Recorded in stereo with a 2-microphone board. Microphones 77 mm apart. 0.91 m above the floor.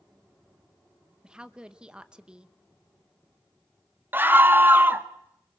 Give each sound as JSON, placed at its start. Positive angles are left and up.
{"t": 1.2, "sound": "a woman speaking", "side_deg": -10, "distance_m": 0.9}
{"t": 4.1, "sound": "a scream", "side_deg": -25, "distance_m": 1.0}